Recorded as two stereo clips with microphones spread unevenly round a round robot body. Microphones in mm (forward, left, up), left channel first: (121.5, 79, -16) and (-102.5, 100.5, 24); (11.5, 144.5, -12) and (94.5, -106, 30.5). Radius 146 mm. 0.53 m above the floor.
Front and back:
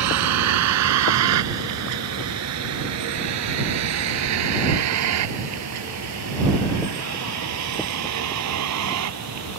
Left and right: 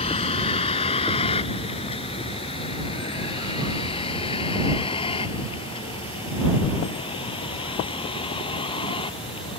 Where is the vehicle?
Straight behind; by 9.6 s 175° right.